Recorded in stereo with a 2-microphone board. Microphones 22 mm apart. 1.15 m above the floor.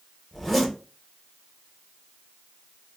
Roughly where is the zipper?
Centre.